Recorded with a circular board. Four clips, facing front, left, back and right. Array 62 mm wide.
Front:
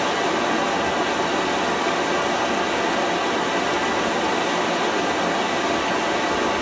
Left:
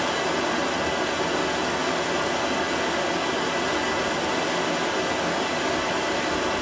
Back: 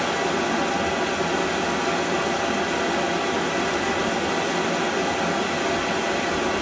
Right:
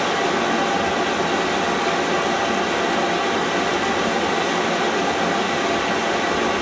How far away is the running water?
About 1.3 m.